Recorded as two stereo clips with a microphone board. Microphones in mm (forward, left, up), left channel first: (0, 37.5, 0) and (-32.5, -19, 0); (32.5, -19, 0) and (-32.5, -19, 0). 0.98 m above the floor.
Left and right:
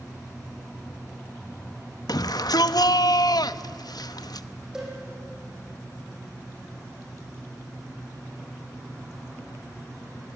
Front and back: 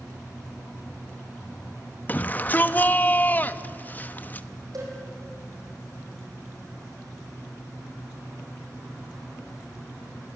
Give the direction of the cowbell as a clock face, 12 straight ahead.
7 o'clock.